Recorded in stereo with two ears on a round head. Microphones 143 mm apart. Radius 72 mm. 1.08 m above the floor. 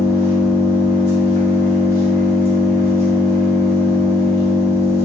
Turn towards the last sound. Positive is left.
turn(degrees=15)  # may be behind; listen again after turning